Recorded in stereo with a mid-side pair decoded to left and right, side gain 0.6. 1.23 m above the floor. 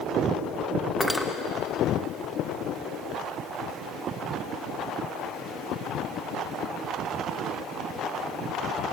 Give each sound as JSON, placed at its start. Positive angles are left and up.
{"t": 1.0, "sound": "cutlery clinking", "azimuth_deg": 5, "distance_m": 0.8}